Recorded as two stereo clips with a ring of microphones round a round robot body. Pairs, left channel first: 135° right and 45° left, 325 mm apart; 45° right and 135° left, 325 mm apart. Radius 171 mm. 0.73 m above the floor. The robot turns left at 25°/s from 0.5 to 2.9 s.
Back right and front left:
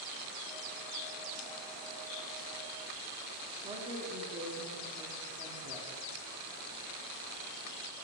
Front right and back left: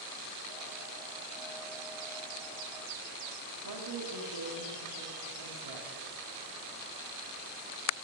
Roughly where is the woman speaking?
Behind left.